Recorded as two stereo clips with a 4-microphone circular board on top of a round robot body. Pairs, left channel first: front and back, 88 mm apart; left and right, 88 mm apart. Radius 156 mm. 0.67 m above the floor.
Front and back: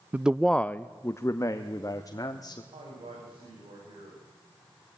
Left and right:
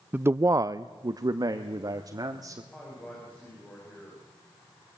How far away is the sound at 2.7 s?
About 6 m.